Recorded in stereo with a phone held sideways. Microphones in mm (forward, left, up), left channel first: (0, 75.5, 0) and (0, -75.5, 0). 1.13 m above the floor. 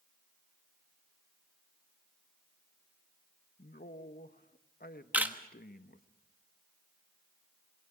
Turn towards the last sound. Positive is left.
turn(degrees=-10)  # may be behind; listen again after turning